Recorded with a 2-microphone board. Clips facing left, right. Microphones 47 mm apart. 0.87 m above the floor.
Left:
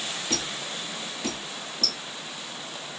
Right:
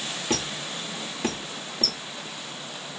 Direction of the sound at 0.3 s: 45° right (ahead or behind).